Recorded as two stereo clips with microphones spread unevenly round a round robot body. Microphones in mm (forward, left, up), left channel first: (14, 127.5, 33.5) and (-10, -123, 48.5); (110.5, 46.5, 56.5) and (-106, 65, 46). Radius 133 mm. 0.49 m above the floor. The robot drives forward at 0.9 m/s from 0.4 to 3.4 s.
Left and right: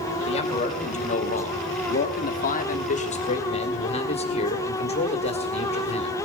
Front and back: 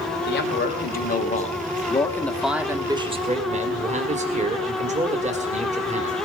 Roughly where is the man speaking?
Ahead left.